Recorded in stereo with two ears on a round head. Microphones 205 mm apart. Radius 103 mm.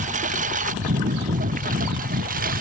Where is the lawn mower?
30° right (ahead or behind); by 2.6 s 35° right (ahead or behind).